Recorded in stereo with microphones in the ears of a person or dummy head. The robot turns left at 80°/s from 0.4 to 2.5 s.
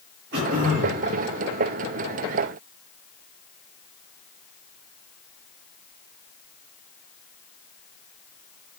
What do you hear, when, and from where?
0.3 s throat clearing: 55° right, 7 m; by 1.0 s 110° right, 7 m